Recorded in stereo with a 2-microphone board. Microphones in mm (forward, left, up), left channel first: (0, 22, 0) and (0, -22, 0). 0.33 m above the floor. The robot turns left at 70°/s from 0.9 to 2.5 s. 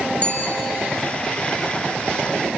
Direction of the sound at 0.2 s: 30° left (ahead or behind).